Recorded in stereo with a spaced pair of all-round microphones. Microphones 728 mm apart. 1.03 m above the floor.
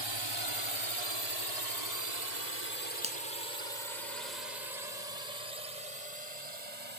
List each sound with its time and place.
0.0 s a drone: 35° right (ahead or behind); by 7.0 s 60° right (ahead or behind)
3.0 s a finger snap: 10° right (ahead or behind)